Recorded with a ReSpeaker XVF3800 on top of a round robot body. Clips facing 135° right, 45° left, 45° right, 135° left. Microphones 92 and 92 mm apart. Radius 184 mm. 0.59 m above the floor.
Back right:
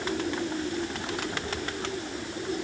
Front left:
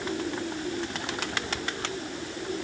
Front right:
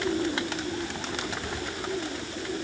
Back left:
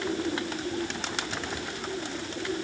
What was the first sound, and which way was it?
Only background noise.